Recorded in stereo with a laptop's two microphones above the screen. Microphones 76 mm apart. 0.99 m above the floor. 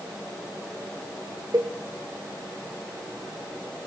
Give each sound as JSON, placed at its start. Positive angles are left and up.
{"t": 1.5, "sound": "a cowbell", "side_deg": -55, "distance_m": 1.0}